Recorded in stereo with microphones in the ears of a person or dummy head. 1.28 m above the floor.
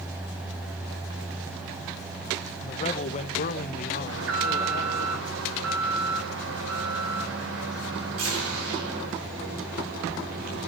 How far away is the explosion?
I don't hear an explosion.